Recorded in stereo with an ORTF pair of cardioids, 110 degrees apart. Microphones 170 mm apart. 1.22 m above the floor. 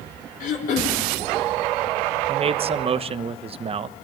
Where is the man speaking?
35° right, 1.0 m.